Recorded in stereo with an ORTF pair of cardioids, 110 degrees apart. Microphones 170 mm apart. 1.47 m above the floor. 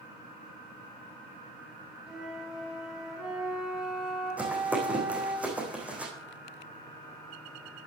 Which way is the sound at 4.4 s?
10° right.